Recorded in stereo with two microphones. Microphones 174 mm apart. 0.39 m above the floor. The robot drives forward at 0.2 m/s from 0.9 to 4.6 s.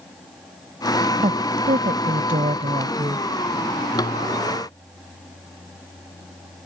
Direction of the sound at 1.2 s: 50° right (ahead or behind).